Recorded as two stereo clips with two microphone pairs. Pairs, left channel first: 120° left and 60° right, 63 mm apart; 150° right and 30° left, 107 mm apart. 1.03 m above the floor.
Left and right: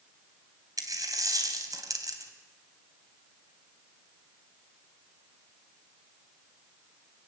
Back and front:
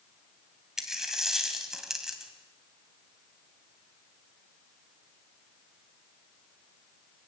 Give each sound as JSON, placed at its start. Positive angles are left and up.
{"t": 0.8, "sound": "a dropped coin", "azimuth_deg": -55, "distance_m": 2.5}